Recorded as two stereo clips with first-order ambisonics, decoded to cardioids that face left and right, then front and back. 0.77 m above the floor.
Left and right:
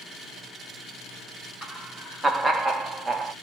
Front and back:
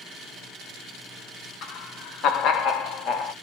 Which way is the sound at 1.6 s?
5° right.